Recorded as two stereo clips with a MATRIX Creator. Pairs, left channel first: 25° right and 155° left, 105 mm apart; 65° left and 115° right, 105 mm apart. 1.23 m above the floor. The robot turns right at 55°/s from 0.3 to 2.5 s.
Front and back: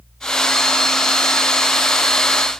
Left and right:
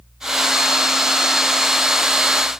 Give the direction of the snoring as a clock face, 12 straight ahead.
I don't hear snoring.